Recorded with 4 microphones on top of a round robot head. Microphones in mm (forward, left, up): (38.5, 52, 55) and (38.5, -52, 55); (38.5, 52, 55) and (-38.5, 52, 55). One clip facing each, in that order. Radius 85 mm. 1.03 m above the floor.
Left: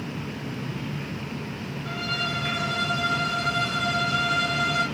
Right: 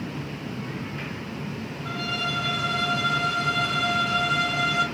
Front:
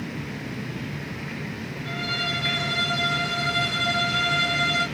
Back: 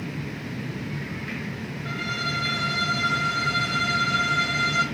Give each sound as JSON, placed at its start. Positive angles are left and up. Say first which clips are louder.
{"t": 1.9, "sound": "a violin", "louder": "right 1 dB, even", "azimuth_deg": -120, "distance_m": 1.7}